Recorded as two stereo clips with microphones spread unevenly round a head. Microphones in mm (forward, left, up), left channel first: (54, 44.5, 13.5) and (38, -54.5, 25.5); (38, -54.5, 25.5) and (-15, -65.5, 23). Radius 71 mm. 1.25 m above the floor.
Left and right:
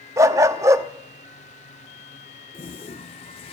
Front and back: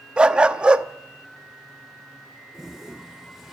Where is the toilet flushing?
105° left, 1.1 m.